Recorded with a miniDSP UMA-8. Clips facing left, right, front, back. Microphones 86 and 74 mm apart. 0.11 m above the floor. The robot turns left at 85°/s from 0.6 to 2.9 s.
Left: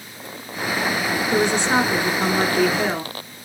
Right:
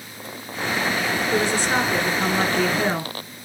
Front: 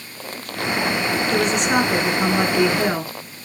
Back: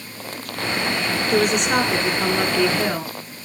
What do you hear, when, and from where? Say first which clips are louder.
1.3 s a woman speaking: left 3 dB, back 1 dB; 115° left, 1.1 m; by 3.1 s 20° right, 1.1 m